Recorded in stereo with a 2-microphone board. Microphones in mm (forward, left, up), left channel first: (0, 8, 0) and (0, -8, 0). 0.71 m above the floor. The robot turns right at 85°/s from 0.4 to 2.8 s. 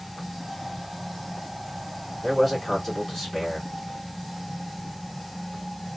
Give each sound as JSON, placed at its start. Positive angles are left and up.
{"t": 2.2, "sound": "a man speaking", "azimuth_deg": -20, "distance_m": 2.5}